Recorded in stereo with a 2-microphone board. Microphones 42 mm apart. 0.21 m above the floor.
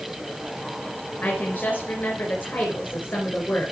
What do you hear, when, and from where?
1.2 s a woman speaking: 40° left (ahead or behind), 3 m